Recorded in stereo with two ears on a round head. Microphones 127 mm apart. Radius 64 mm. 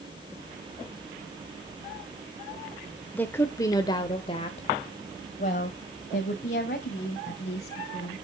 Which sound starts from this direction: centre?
A woman speaking, at 3.1 s.